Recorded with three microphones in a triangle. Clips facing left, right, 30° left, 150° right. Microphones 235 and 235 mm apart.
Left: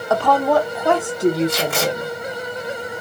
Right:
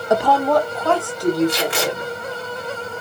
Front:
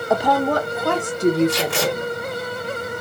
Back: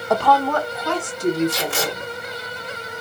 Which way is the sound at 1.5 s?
50° left.